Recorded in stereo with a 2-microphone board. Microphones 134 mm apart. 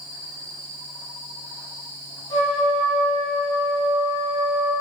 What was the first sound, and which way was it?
A trumpet, 35° left (ahead or behind).